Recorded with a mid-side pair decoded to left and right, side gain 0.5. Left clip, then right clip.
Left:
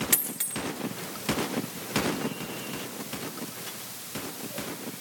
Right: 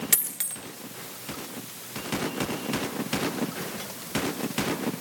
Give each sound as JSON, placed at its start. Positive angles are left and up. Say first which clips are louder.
{"t": 0.1, "sound": "a dropped coin", "louder": "even", "azimuth_deg": -20, "distance_m": 1.3}